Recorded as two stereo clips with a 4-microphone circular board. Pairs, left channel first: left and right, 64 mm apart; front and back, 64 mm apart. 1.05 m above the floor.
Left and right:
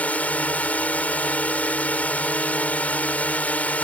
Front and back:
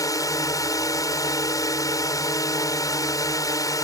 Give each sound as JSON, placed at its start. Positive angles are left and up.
{"t": 0.0, "sound": "a drone", "azimuth_deg": 20}